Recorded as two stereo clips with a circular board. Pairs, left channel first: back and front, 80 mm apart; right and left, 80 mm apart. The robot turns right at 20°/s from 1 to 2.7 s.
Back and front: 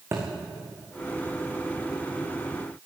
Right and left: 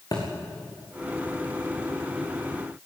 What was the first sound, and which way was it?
A thud, 55° right.